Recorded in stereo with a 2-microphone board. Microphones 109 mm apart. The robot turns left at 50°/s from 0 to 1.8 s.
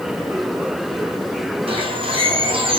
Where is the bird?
60° right (ahead or behind), 3.5 m; by 2.8 s 55° right (ahead or behind), 3.5 m.